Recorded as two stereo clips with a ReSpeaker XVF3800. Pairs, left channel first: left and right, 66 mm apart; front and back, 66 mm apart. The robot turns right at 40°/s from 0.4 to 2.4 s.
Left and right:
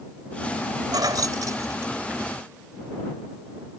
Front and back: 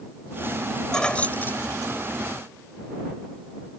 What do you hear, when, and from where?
0.9 s keys jangling: 80° right; by 2.3 s 30° right